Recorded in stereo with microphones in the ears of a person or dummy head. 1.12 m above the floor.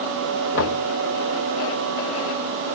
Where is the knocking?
60° left (ahead or behind), 1.1 m.